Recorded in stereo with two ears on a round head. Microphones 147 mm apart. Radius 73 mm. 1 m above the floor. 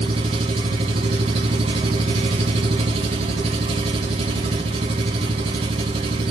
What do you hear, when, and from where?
0.0 s an engine running: 35° right (ahead or behind), 3 m